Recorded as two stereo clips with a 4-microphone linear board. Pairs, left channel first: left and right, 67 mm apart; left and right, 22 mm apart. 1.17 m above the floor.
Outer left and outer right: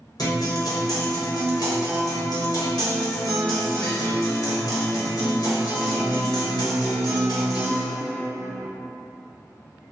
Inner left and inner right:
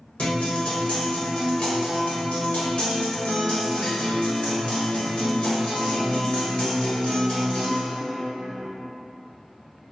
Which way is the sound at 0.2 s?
70° left (ahead or behind).